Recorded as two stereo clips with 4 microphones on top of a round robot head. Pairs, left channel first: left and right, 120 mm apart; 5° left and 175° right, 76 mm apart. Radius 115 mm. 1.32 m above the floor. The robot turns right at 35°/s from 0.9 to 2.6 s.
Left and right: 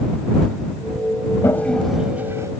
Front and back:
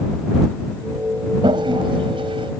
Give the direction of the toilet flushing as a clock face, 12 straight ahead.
7 o'clock.